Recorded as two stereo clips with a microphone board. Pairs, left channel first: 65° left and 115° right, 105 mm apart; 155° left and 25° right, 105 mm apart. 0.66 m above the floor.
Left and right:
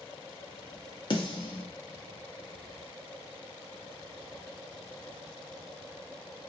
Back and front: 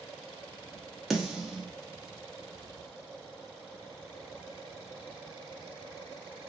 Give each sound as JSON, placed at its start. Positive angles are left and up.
{"t": 1.1, "sound": "a snare drum", "azimuth_deg": 65, "distance_m": 0.7}